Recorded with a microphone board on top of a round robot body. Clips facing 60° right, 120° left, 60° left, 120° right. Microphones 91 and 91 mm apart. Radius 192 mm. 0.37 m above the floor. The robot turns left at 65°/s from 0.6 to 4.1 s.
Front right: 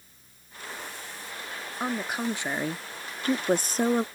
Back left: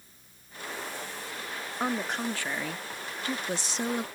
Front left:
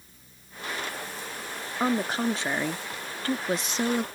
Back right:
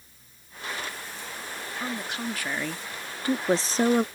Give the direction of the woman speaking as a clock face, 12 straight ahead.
11 o'clock.